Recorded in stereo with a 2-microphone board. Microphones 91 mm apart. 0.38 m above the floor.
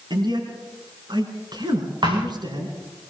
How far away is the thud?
About 6 m.